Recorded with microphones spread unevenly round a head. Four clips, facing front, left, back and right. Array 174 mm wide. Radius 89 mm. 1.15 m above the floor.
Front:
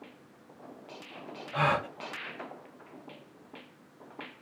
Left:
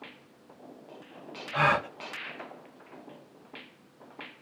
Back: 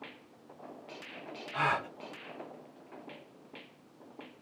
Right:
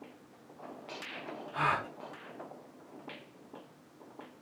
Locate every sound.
1.5 s a gasp: 55° left, 2.5 m